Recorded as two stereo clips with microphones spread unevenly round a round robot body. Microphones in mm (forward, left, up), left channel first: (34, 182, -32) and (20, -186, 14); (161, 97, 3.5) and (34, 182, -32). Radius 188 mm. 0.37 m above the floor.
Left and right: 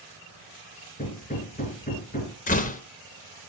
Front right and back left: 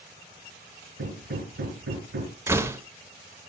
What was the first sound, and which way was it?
Hammering, 160° left.